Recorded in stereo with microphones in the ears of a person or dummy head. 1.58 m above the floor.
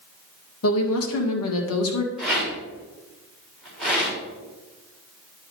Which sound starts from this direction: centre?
A rattle, at 2.2 s.